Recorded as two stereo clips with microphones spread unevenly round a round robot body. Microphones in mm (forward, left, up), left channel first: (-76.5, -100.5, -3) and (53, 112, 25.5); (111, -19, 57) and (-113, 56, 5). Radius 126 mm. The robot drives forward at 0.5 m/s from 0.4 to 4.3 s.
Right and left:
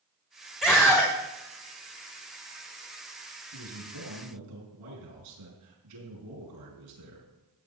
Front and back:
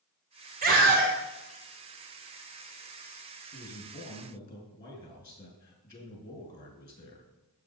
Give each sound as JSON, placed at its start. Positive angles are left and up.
{"t": 0.6, "sound": "a scream", "azimuth_deg": 155, "distance_m": 1.5}
{"t": 3.5, "sound": "a man speaking", "azimuth_deg": 50, "distance_m": 6.5}